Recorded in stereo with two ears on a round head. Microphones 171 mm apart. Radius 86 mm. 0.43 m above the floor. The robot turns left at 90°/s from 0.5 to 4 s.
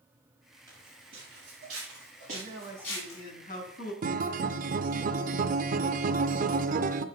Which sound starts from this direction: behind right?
A man speaking, at 2.3 s.